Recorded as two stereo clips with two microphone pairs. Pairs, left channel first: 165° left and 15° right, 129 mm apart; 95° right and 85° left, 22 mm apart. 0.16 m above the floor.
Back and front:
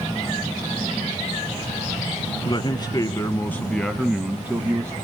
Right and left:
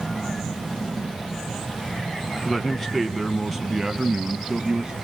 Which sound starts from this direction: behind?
A man speaking, at 2.5 s.